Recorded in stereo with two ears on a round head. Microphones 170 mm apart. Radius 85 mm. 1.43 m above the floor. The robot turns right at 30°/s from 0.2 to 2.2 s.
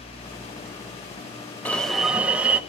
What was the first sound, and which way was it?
An alarm, 10° left (ahead or behind).